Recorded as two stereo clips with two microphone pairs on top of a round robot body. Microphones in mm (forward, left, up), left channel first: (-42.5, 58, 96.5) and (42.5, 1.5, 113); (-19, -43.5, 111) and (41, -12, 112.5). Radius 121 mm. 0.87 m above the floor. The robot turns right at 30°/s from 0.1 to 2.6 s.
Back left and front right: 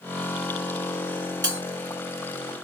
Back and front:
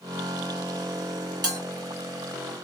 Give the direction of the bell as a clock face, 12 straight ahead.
11 o'clock.